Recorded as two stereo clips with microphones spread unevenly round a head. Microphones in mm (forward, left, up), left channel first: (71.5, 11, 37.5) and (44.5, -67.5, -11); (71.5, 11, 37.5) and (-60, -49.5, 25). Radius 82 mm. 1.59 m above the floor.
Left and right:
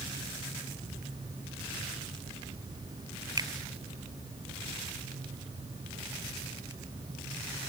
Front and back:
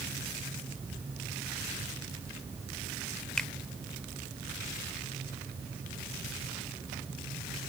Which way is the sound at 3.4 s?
60° right.